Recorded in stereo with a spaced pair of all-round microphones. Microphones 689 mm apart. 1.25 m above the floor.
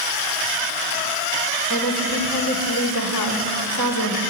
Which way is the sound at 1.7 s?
30° right (ahead or behind).